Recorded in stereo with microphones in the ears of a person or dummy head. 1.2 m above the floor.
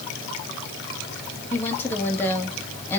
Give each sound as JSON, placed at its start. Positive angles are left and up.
{"t": 1.5, "sound": "a woman speaking", "side_deg": 10, "distance_m": 1.7}